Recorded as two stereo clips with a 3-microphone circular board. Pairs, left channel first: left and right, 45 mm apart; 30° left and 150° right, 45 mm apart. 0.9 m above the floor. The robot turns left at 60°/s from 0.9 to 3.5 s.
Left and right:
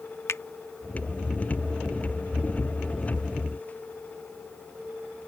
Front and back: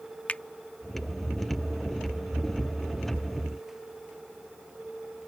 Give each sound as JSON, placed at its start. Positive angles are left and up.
{"t": 0.3, "sound": "a finger snap", "azimuth_deg": 85}